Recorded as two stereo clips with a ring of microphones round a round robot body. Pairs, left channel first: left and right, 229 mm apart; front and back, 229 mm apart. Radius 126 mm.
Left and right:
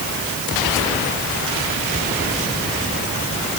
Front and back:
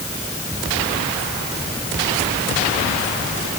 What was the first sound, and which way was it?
Only background noise.